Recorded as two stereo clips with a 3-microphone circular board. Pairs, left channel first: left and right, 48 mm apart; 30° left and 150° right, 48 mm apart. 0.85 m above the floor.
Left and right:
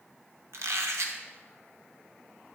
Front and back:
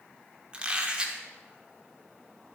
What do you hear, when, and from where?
0.5 s a squeak: 80° right, 1.3 m